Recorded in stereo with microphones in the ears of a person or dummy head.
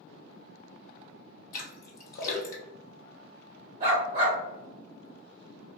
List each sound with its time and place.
1.5 s a splash: 60° left (ahead or behind), 0.9 m
3.8 s a dog barking: 25° right (ahead or behind), 1.3 m